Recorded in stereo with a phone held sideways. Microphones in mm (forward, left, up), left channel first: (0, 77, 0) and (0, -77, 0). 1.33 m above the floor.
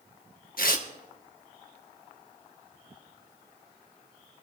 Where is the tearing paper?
65° left (ahead or behind), 1.1 m.